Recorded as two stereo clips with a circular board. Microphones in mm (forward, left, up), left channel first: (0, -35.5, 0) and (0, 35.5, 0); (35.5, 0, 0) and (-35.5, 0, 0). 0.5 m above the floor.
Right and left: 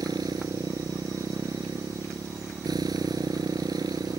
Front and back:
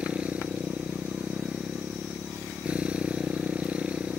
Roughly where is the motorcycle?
Left.